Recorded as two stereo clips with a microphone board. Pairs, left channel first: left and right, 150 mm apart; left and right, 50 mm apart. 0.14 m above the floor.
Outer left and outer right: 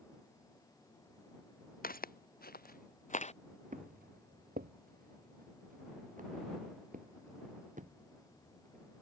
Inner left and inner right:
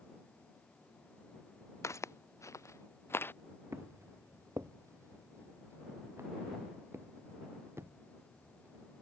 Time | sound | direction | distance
1.8 | footsteps | 70° left (ahead or behind) | ?
3.7 | footsteps | 60° right (ahead or behind) | ?